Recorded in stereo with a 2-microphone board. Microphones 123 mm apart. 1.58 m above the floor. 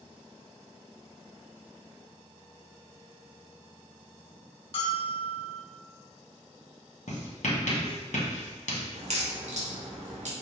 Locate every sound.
4.7 s a bell: 50° left (ahead or behind), 0.9 m
7.1 s writing: 70° left (ahead or behind), 1.1 m
8.9 s a crack: 70° right (ahead or behind), 1.0 m